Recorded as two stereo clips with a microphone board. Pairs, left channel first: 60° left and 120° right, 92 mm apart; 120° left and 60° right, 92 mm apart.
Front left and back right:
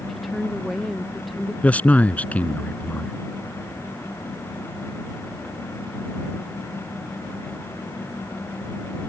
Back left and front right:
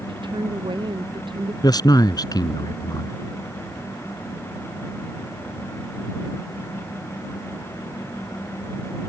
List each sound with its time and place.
0.1 s a woman speaking: 30° right
1.6 s a man speaking: 125° left